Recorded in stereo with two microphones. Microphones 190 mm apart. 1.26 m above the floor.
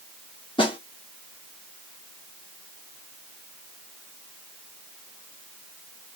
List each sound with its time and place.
0.6 s a snare drum: 25° left (ahead or behind), 1.0 m